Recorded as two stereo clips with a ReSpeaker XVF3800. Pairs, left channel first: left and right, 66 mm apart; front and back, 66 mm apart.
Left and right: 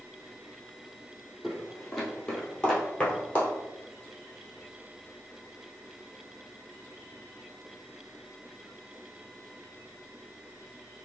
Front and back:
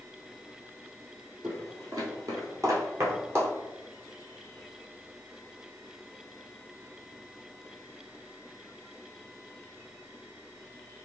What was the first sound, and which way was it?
Footsteps, 175° left.